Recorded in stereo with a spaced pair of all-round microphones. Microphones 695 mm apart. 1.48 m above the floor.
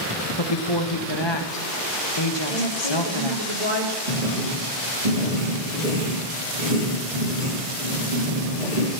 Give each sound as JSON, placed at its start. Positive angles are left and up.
{"t": 0.4, "sound": "a woman speaking", "side_deg": 35, "distance_m": 0.9}
{"t": 2.5, "sound": "a woman speaking", "side_deg": 75, "distance_m": 2.5}
{"t": 4.1, "sound": "writing", "side_deg": -60, "distance_m": 5.5}